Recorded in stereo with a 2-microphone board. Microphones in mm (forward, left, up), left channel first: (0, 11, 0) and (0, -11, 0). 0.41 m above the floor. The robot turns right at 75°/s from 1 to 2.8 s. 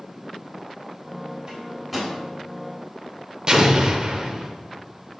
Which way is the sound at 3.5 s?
35° right (ahead or behind).